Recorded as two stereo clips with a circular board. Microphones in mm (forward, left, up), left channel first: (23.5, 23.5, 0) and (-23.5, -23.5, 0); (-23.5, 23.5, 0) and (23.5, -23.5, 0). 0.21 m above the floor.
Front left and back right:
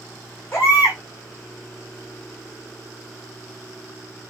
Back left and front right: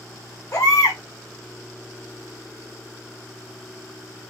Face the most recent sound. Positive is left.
turn(degrees=100)